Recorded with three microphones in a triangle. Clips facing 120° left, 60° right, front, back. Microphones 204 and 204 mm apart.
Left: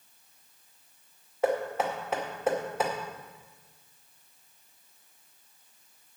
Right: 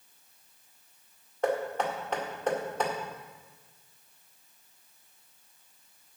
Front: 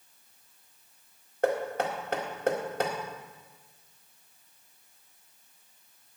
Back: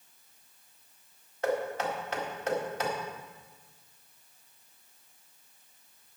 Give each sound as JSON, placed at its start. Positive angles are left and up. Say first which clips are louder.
{"t": 1.4, "sound": "knocking", "louder": "left 1 dB, front 2 dB", "azimuth_deg": 35, "distance_m": 1.9}